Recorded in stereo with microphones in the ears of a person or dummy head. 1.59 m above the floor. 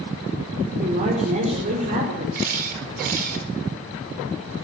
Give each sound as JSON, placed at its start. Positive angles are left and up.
{"t": 0.8, "sound": "a woman speaking", "side_deg": -40, "distance_m": 6.0}
{"t": 2.4, "sound": "a camera shutter", "side_deg": -55, "distance_m": 4.5}